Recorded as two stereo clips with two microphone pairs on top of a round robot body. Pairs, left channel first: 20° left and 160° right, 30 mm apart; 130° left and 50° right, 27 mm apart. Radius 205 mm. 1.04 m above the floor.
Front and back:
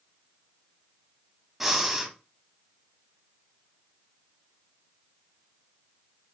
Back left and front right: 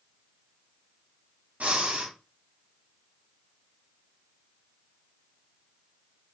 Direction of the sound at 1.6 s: 80° right.